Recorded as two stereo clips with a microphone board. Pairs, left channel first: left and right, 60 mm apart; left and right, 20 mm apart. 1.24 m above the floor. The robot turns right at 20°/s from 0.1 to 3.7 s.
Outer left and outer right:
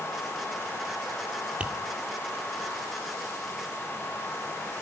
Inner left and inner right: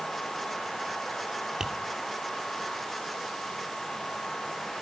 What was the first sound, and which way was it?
Tapping, 20° right (ahead or behind).